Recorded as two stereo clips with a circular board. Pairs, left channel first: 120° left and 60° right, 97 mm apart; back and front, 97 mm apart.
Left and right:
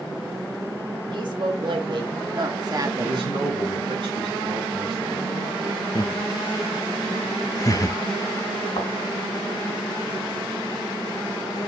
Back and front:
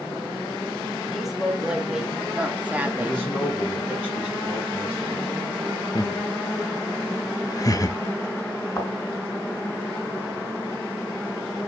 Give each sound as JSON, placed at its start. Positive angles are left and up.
{"t": 1.1, "sound": "a woman speaking", "azimuth_deg": -90, "distance_m": 3.0}
{"t": 3.0, "sound": "a man speaking", "azimuth_deg": -95, "distance_m": 3.0}
{"t": 6.0, "sound": "laughter", "azimuth_deg": 150, "distance_m": 0.8}
{"t": 8.8, "sound": "a thud", "azimuth_deg": 125, "distance_m": 2.5}